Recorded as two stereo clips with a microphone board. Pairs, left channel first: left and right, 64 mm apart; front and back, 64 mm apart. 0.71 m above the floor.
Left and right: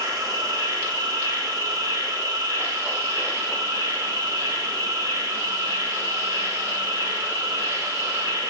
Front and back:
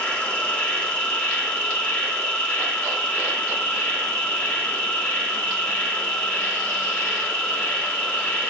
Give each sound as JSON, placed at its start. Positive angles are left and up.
{"t": 0.0, "sound": "an insect", "azimuth_deg": -75, "distance_m": 1.2}